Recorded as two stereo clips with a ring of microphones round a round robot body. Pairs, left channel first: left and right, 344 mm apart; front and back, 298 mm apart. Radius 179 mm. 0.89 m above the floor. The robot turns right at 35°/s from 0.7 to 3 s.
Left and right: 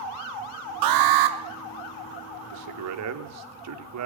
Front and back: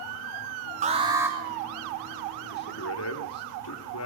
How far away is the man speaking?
About 3 m.